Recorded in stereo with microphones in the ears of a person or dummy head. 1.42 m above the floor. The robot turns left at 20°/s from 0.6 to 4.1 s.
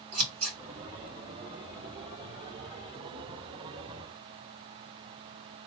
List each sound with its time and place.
0.1 s scissors: 80° right, 2 m